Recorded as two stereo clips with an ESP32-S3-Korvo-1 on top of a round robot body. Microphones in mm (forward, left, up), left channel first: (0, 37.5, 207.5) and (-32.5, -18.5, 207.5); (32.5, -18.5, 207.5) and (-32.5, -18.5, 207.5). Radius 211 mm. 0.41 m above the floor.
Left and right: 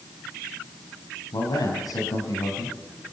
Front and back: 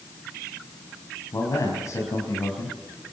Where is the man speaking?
40° left, 5 m.